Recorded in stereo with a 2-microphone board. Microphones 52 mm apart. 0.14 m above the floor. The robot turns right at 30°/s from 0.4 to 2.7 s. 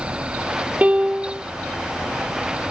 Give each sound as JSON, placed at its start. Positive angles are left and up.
{"t": 0.8, "sound": "a piano", "side_deg": -25}